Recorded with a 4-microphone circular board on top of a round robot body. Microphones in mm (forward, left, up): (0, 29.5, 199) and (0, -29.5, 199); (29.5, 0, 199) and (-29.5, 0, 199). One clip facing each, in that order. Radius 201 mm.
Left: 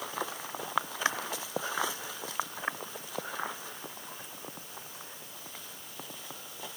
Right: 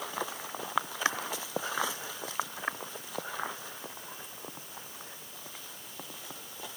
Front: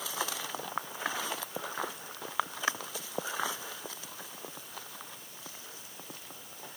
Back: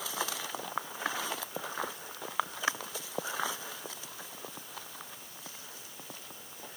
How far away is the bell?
I don't hear a bell.